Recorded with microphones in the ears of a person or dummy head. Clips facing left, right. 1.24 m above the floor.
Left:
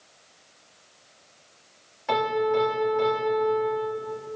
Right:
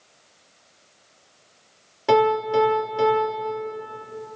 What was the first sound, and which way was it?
A piano, 55° right (ahead or behind).